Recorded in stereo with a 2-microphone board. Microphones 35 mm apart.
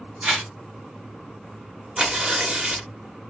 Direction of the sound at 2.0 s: 30° right (ahead or behind).